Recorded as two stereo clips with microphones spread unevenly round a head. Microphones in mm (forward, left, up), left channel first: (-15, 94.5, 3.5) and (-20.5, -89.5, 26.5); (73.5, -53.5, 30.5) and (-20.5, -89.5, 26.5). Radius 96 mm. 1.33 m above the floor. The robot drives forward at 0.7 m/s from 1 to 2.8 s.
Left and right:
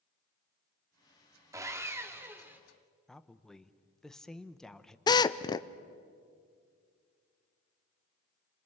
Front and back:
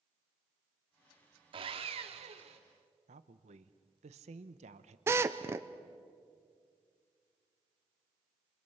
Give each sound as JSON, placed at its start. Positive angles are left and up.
{"t": 1.5, "sound": "sawing", "azimuth_deg": -155, "distance_m": 1.1}
{"t": 3.1, "sound": "a woman speaking", "azimuth_deg": 175, "distance_m": 0.9}
{"t": 5.1, "sound": "a drill", "azimuth_deg": 145, "distance_m": 0.6}